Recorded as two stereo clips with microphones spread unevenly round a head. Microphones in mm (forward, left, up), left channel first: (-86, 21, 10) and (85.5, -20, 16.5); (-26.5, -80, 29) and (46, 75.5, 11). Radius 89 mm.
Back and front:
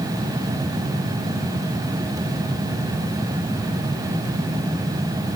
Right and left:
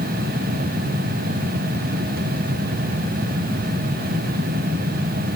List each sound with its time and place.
Only background noise.